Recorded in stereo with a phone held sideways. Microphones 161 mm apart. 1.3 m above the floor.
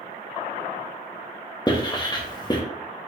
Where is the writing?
25° left (ahead or behind), 0.9 m.